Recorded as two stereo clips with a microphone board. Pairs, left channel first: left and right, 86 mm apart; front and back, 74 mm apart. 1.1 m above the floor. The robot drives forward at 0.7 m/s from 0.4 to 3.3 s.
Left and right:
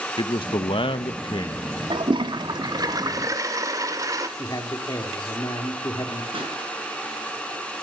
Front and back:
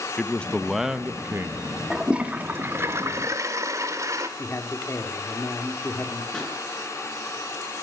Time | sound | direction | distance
0.2 | a man speaking | 75° left | 0.8 m
1.9 | a toilet flushing | 95° right | 1.2 m
4.4 | a man speaking | 50° left | 3 m
6.3 | a pop | 85° right | 7 m